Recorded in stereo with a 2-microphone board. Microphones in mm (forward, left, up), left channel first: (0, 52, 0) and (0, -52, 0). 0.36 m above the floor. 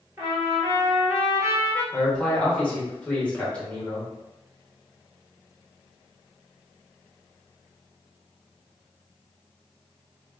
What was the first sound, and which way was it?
A trumpet, 30° right (ahead or behind).